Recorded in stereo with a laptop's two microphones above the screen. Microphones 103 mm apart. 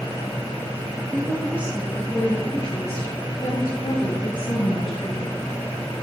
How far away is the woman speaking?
About 1.6 m.